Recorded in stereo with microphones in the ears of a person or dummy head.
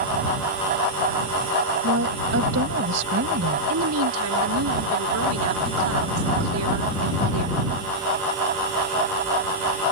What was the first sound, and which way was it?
A woman speaking, 60° right (ahead or behind).